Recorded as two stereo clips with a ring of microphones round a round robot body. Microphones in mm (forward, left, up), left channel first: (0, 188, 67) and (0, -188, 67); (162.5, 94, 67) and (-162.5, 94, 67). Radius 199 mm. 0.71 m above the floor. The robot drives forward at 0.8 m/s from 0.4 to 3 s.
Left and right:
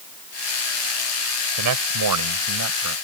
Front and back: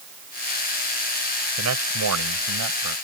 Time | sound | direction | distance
1.6 | a man speaking | 125° right | ?